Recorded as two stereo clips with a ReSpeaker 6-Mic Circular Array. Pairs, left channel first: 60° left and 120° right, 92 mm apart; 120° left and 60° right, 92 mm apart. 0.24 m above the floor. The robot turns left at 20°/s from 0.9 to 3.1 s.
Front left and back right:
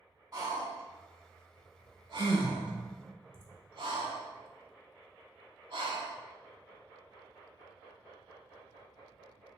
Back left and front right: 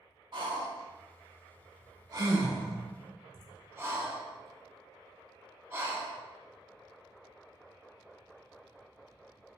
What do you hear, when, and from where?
0.3 s breathing: 80° right, 0.5 m; by 6.2 s 120° right, 0.5 m